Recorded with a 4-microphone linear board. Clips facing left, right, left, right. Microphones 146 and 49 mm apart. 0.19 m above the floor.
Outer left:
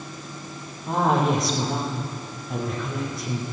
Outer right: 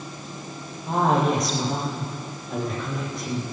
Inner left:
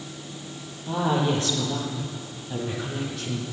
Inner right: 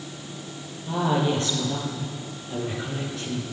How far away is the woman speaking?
About 4.5 m.